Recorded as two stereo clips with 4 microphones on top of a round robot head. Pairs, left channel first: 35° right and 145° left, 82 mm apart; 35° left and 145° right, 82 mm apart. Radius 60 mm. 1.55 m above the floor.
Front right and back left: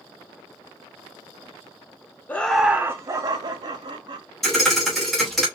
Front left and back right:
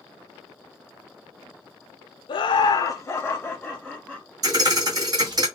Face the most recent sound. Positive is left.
turn(degrees=-120)